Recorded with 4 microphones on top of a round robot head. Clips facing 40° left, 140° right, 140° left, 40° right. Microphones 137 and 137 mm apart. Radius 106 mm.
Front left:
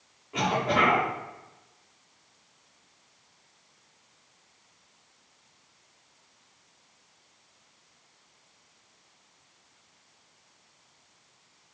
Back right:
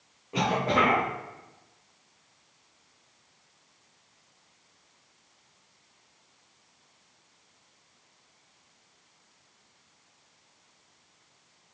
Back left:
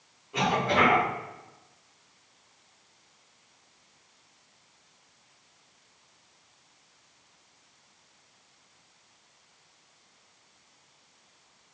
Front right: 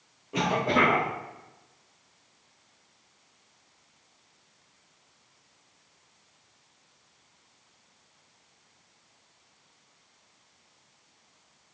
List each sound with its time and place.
0.3 s a cough: 80° right, 1.3 m